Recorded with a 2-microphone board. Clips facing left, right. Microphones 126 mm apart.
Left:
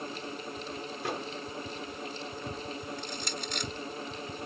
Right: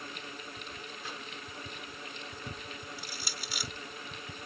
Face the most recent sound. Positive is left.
turn(degrees=-5)  # may be behind; listen again after turning